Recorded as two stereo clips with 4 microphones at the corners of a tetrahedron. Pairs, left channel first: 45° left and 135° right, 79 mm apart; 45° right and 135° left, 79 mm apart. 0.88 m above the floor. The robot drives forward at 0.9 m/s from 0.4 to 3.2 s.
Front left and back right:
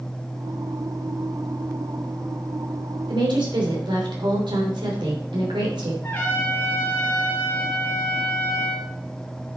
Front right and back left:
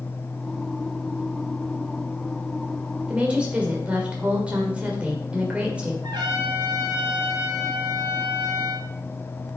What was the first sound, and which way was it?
A woman speaking, 150° right.